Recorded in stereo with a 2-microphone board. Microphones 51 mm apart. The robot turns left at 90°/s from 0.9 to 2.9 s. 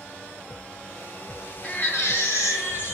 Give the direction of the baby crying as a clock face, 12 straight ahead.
7 o'clock.